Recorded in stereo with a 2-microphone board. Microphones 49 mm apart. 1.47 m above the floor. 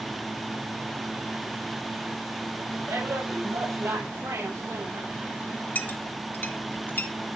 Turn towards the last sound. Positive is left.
turn(degrees=45)  # may be behind; listen again after turning